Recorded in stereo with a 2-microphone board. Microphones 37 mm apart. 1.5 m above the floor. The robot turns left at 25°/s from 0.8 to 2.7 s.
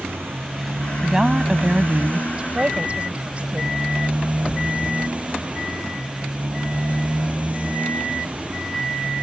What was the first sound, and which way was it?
A motorcycle, 95° right.